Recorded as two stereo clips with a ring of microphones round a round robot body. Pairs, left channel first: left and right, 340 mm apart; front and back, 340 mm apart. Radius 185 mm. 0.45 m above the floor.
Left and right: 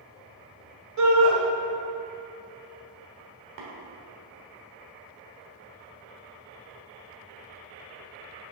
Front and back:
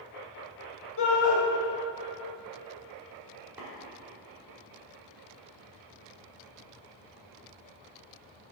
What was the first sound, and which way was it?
A shout, 55° right.